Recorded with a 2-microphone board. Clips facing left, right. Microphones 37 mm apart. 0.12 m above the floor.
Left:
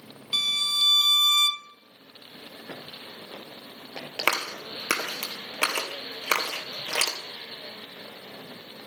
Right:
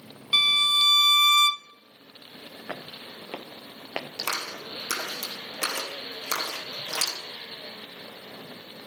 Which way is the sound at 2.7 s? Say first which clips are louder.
Right 4 dB; 65° right (ahead or behind).